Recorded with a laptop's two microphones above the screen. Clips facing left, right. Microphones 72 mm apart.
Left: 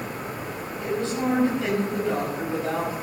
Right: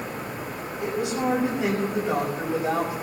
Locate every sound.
0.8 s a woman speaking: 20° right (ahead or behind), 6.5 m